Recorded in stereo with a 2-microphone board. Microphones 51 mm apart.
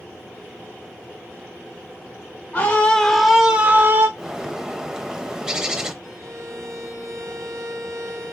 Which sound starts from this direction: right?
A violin, at 6.0 s.